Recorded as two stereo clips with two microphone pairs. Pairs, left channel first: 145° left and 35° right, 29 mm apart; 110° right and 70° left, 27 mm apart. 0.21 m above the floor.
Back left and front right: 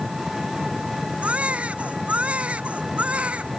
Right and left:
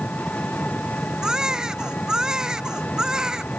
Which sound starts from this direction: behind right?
An engine running, at 0.0 s.